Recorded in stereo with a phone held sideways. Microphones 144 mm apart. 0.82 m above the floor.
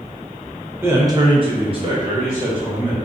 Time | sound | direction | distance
0.8 | a man speaking | 15° right (ahead or behind) | 0.8 m